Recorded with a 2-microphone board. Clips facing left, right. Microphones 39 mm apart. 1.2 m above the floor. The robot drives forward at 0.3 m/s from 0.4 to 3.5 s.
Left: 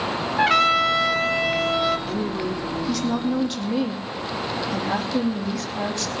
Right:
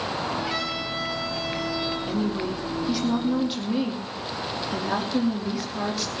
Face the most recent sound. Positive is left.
turn(degrees=-15)  # may be behind; listen again after turning